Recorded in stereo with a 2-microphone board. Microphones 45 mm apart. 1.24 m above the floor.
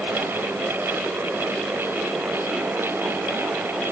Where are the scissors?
I don't hear scissors.